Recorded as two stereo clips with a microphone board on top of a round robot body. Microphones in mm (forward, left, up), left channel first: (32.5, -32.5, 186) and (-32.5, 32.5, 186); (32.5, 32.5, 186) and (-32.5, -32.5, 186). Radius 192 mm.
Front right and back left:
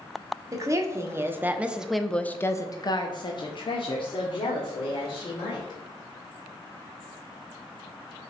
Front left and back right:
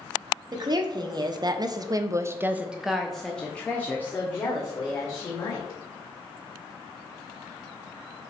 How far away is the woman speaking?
About 1.6 m.